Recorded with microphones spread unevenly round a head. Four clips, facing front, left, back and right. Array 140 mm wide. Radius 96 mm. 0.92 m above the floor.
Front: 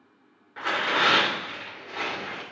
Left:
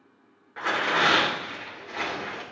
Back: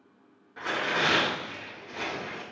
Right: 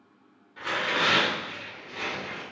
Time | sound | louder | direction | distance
0.6 | tearing paper | left 4 dB, front 3 dB | 40° left | 3.5 m